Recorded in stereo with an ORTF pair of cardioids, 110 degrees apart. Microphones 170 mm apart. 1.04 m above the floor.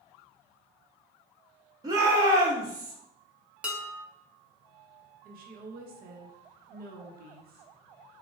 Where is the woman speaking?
65° right, 0.8 m.